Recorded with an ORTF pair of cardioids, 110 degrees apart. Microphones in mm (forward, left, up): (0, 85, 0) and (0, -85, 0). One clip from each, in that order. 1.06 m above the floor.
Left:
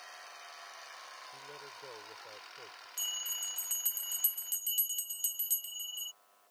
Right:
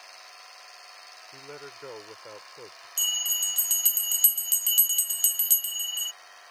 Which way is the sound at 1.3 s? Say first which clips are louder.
Right 5 dB; 50° right.